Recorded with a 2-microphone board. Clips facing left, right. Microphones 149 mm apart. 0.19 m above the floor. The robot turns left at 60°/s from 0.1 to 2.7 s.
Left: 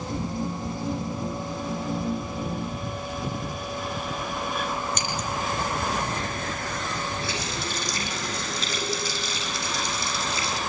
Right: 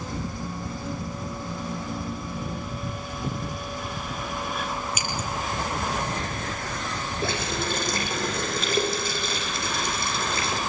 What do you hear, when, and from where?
5.0 s scissors: 10° right (ahead or behind), 5.5 m
7.2 s a running tap: 50° right (ahead or behind), 6.5 m